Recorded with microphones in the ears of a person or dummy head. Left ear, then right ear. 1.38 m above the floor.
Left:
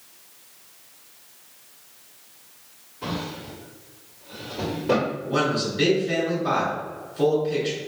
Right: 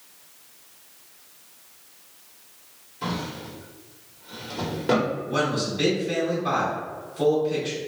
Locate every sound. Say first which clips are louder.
3.0 s a drawer: even; 70° right (ahead or behind), 1.7 m
5.3 s a man speaking: left 1 dB; 5° left (ahead or behind), 1.4 m